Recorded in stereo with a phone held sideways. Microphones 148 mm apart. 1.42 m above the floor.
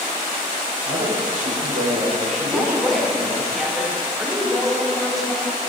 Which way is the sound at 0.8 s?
70° right (ahead or behind).